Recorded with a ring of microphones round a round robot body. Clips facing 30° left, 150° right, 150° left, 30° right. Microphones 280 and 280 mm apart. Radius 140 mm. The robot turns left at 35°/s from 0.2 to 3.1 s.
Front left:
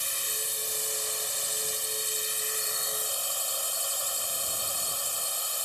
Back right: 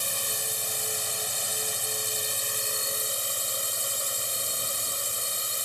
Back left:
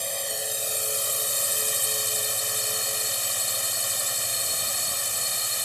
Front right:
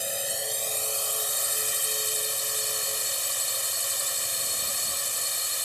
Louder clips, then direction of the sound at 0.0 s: Back right 4 dB, even; 115° right.